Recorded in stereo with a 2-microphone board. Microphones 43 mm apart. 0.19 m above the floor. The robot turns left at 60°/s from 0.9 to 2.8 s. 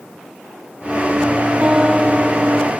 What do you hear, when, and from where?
1.6 s a guitar: 155° right; by 2.7 s 140° left